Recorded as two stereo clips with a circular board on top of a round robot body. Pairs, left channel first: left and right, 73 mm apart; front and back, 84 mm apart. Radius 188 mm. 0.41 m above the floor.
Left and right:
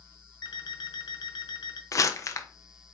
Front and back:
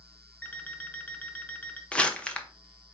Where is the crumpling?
70° left, 0.9 m.